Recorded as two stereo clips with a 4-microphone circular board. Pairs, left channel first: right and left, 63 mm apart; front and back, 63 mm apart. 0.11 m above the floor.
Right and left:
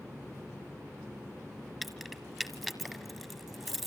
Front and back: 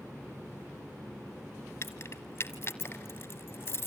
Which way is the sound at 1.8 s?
Straight ahead.